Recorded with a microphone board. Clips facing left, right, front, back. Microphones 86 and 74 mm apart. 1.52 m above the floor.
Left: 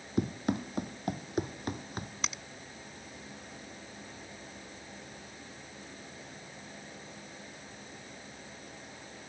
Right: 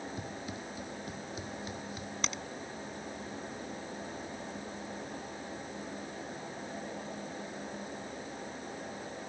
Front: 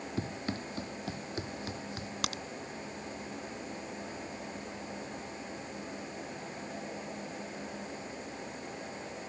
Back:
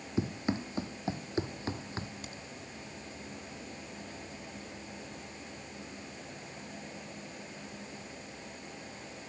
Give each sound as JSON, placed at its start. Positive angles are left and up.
{"t": 0.2, "sound": "running footsteps", "azimuth_deg": 110}
{"t": 2.2, "sound": "a crack", "azimuth_deg": 5}